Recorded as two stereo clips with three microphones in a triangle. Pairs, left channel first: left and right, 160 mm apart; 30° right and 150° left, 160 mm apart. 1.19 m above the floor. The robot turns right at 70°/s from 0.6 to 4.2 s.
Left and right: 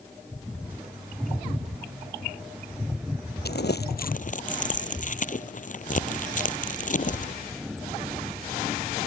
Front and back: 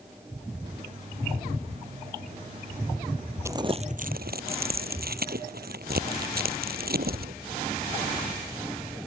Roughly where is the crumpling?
Left.